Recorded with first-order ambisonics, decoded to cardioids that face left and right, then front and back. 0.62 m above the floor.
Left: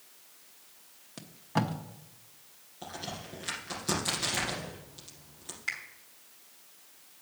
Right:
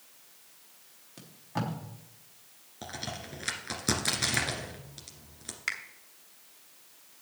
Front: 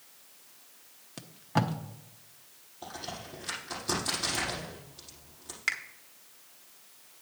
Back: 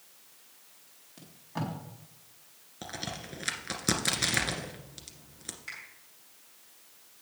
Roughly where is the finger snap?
Ahead right.